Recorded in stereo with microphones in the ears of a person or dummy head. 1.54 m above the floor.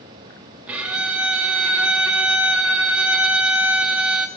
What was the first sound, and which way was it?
A violin, 10° right (ahead or behind).